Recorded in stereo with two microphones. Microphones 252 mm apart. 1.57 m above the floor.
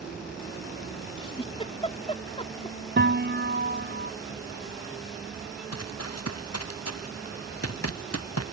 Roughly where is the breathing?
No breathing in this recording.